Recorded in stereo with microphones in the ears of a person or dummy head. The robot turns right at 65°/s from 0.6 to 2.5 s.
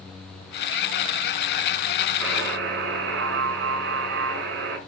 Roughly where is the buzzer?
Right.